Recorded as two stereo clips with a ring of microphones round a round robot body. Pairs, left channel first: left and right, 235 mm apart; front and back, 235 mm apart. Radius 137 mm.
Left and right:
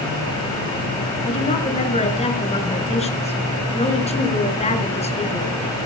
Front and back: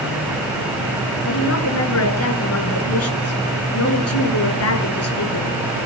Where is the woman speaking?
25° left, 5.5 m.